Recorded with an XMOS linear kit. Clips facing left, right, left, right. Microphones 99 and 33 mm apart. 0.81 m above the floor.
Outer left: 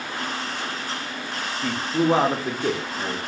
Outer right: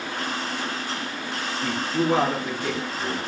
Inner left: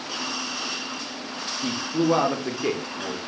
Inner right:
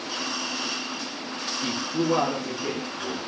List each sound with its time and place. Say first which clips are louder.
1.6 s a man speaking: outer left 2 dB, inner left 3 dB; 5° right (ahead or behind), 0.6 m; by 3.2 s 60° left (ahead or behind), 0.9 m